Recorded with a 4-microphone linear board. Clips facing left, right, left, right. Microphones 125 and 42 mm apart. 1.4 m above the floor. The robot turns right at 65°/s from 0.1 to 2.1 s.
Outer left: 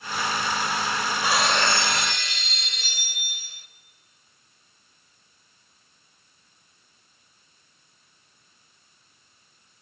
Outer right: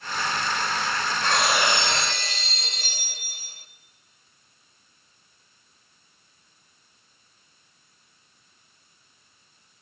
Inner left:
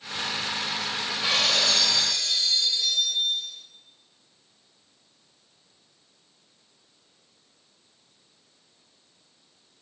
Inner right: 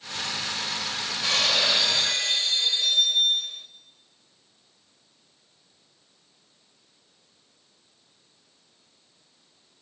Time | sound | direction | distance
1.2 | breaking glass | 165° left | 2 m